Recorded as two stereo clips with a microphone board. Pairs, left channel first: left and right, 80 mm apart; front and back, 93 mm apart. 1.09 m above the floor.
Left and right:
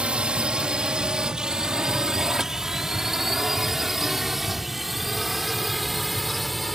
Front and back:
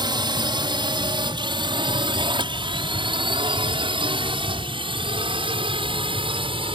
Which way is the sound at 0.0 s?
165° right.